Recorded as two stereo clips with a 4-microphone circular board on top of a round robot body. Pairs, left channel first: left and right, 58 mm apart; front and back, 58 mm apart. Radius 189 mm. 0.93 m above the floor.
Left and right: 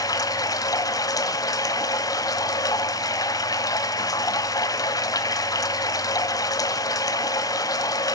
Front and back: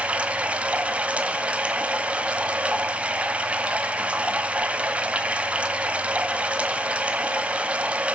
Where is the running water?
110° left, 0.7 m.